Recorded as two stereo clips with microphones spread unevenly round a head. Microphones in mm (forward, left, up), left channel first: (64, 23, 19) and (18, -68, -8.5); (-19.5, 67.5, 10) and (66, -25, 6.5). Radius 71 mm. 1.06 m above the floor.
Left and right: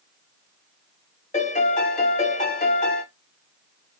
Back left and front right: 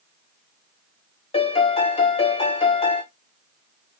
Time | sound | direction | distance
1.3 | a piano | 95° left | 1.0 m